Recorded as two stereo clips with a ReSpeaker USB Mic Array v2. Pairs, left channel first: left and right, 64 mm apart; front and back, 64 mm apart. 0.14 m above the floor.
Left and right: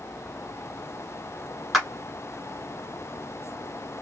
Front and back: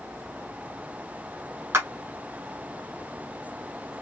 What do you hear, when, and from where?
1.7 s a clap: 175° right, 1.3 m